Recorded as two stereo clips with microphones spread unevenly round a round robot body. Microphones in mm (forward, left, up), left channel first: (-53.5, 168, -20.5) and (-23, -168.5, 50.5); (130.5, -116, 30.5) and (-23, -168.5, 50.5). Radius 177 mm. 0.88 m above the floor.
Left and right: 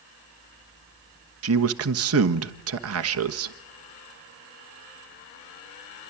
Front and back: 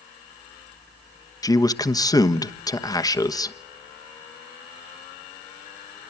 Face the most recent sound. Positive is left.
turn(degrees=-35)